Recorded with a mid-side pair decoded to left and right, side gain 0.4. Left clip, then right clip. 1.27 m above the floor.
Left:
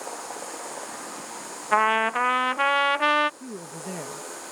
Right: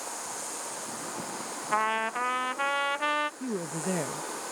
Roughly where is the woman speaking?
Ahead right.